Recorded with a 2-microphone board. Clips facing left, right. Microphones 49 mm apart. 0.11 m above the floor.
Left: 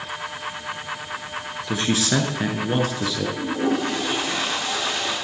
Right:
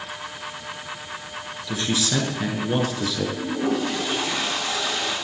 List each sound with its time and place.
1.7 s a man speaking: 35° left (ahead or behind), 1.8 m; by 3.3 s centre (ahead or behind), 1.7 m
3.4 s a toilet flushing: 20° left (ahead or behind), 5 m